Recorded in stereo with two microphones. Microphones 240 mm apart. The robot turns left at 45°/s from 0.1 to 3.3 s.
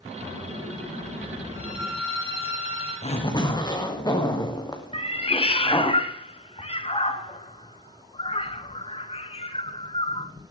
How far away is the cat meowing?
About 1.1 m.